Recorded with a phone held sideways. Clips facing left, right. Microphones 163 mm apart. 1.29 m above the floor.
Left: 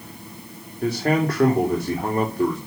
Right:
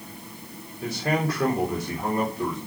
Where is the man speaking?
55° left (ahead or behind), 3.5 m.